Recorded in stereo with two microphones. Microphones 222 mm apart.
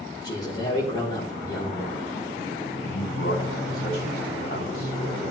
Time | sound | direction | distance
0.2 | a man speaking | 20° left (ahead or behind) | 4 m
2.8 | a man speaking | 50° left (ahead or behind) | 5.5 m